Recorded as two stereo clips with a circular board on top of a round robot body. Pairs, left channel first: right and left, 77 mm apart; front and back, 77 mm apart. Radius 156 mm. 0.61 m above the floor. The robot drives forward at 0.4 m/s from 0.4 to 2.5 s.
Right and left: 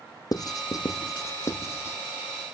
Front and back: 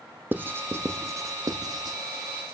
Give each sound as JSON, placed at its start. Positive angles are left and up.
{"t": 0.3, "sound": "writing", "azimuth_deg": -120, "distance_m": 0.9}